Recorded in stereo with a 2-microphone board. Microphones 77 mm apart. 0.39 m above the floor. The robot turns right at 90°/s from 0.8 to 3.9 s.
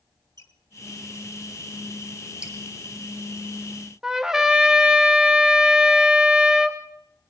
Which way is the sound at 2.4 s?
15° right (ahead or behind).